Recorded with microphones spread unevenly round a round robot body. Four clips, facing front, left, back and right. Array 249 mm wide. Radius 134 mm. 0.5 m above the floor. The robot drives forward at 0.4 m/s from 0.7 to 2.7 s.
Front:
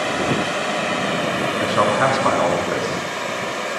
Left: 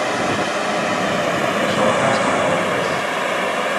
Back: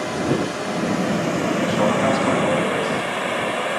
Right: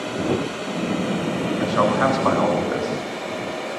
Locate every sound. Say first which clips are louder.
0.0 s running water: left 4 dB, front 1 dB; 60° left, 1.6 m; by 3.8 s 90° left, 1.4 m
1.6 s a man speaking: even, front 3 dB; 15° right, 6.5 m